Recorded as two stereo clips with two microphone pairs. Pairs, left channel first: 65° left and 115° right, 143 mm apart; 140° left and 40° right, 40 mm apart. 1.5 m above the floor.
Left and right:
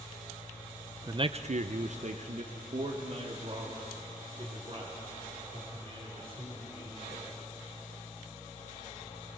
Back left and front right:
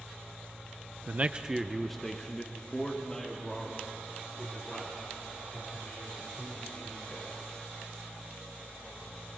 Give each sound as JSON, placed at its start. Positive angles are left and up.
{"t": 1.1, "sound": "a man speaking", "azimuth_deg": -60, "distance_m": 0.6}